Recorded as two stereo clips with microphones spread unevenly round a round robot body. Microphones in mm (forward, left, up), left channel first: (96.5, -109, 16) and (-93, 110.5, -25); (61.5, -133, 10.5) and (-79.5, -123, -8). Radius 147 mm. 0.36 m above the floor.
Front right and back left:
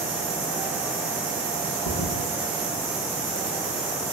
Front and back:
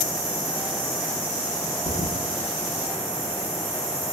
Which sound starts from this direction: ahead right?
A thud, at 1.9 s.